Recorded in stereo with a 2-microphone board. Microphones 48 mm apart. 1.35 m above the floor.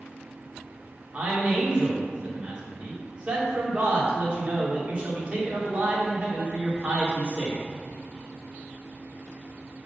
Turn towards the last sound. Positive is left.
turn(degrees=-25)  # may be behind; listen again after turning